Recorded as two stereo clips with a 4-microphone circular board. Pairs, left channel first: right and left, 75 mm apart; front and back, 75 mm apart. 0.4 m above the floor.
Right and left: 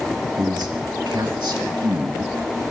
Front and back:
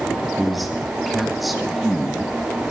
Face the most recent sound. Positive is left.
turn(degrees=90)